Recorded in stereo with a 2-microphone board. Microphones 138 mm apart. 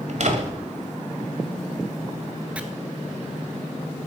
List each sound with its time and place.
0.1 s a door slam: 60° right (ahead or behind), 1.7 m
2.5 s chopping: 10° right (ahead or behind), 0.9 m